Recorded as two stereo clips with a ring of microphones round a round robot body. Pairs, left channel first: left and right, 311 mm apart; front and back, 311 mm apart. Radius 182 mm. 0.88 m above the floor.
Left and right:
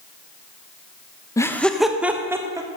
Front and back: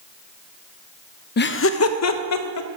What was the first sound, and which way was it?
Laughter, 20° left.